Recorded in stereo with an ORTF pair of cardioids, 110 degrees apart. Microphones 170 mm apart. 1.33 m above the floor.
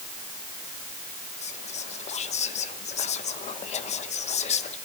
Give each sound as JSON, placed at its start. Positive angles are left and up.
{"t": 1.4, "sound": "whispering", "azimuth_deg": 40, "distance_m": 1.1}